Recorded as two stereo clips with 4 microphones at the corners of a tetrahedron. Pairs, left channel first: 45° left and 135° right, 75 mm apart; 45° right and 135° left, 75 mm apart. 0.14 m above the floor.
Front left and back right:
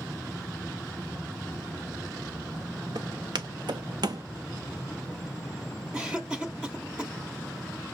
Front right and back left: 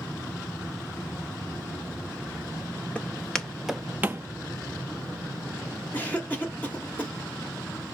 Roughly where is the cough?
Right.